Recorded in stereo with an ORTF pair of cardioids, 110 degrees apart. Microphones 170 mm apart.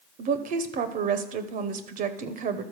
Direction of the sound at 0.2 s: 55° right.